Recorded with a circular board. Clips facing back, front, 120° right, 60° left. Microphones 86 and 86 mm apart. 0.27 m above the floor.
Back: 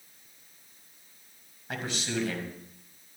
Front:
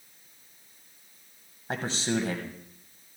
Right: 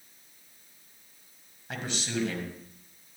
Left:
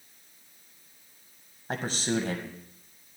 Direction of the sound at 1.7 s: 40° left.